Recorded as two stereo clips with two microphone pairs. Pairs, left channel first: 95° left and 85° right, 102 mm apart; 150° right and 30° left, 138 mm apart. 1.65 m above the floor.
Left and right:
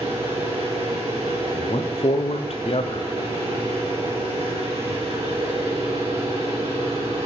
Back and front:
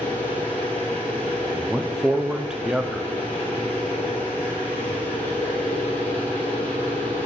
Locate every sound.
0.0 s an engine running: 70° right, 3.5 m
1.5 s a man speaking: 115° left, 0.6 m